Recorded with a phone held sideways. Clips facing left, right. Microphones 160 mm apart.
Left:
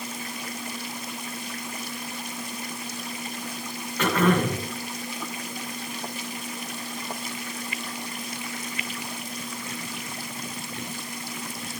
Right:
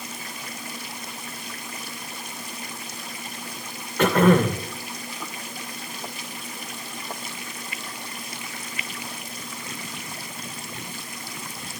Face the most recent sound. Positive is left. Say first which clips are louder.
# right 4 dB
turn(degrees=-50)  # may be behind; listen again after turning